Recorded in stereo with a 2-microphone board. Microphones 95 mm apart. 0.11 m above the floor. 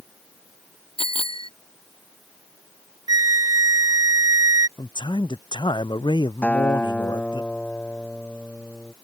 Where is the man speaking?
55° left (ahead or behind).